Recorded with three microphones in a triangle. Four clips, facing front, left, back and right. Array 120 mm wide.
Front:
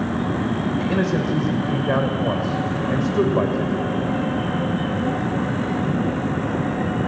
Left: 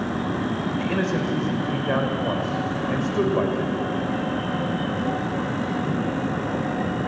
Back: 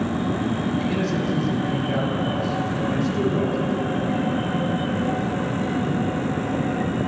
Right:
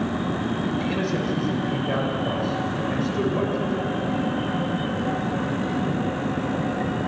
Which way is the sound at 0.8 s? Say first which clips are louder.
Left 1 dB, front 2 dB; 5° left.